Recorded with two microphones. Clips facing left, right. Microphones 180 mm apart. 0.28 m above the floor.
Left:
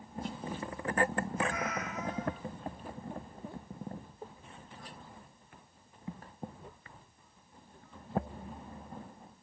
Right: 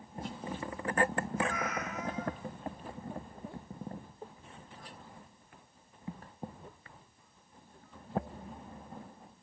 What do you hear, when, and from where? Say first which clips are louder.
1.5 s a cat meowing: even; 30° left (ahead or behind), 1.5 m